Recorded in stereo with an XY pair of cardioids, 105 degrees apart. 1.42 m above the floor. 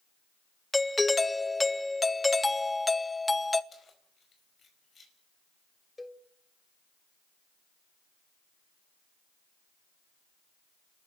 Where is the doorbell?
15° left, 0.8 m.